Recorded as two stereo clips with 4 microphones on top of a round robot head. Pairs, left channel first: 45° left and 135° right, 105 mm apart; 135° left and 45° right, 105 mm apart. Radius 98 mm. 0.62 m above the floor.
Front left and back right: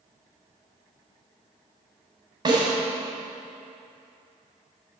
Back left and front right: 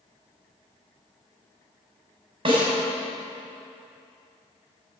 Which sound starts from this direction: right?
A snare drum, at 2.5 s.